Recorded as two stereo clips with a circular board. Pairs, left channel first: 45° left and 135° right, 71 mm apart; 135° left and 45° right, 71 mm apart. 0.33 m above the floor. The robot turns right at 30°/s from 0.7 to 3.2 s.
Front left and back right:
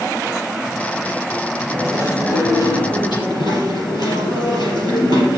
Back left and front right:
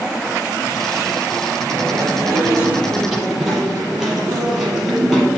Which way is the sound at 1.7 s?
5° right.